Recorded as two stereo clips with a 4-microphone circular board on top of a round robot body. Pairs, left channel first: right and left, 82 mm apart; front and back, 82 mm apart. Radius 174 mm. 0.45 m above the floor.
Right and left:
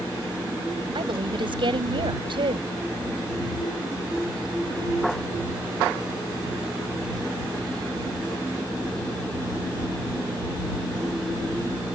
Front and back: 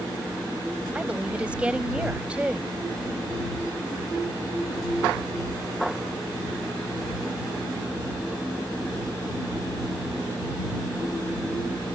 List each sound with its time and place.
0.9 s a woman speaking: 105° left